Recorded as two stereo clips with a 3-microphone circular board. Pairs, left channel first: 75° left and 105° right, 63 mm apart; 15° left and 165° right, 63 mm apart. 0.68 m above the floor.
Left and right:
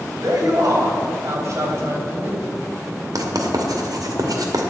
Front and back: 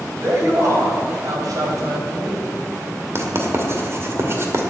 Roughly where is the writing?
Behind right.